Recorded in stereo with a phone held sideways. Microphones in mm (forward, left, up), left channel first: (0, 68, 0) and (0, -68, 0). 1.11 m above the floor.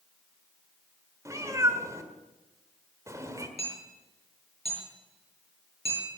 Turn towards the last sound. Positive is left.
turn(degrees=50)  # may be behind; listen again after turning